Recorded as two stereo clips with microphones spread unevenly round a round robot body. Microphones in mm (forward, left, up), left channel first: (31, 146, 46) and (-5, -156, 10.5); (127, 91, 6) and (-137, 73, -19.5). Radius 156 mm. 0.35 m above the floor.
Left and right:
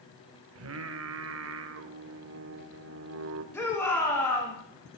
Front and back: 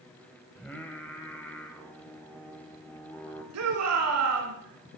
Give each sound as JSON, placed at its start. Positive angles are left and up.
{"t": 0.6, "sound": "singing", "azimuth_deg": -85, "distance_m": 1.0}
{"t": 3.5, "sound": "a shout", "azimuth_deg": 170, "distance_m": 4.0}